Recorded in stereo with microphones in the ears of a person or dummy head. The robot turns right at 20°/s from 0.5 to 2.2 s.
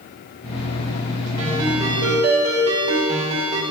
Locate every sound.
1.4 s a ringtone: 20° right (ahead or behind), 3 m; by 3.6 s 35° right (ahead or behind), 3 m